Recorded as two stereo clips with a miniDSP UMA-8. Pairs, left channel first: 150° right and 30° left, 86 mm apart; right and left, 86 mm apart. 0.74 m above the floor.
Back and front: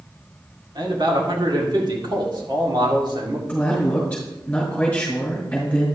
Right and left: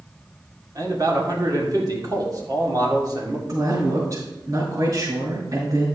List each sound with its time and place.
0.8 s a man speaking: 50° left, 2.0 m
3.5 s a man speaking: 135° left, 4 m